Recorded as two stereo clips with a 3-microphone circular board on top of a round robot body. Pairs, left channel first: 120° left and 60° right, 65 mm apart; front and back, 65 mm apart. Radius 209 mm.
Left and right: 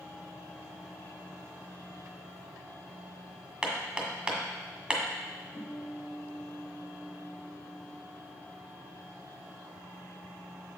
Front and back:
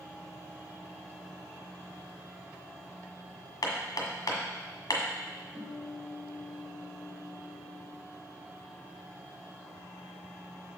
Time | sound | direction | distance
3.6 | hammering | 15° left | 1.7 m
5.5 | a guitar | 175° left | 3 m